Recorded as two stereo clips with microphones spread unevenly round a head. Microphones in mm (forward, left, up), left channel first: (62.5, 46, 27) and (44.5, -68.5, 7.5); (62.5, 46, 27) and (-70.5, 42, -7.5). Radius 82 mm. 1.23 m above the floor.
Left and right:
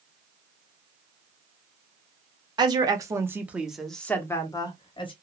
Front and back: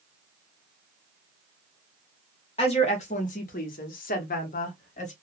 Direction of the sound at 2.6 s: 60° right.